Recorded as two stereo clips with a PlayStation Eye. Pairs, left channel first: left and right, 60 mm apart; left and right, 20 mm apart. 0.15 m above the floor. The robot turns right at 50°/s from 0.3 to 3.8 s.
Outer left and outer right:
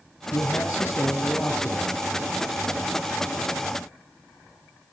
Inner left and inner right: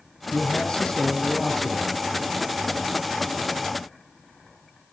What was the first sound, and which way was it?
A man speaking, 110° left.